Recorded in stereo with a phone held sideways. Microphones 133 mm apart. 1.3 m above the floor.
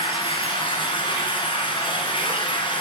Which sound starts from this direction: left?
Running water, at 0.0 s.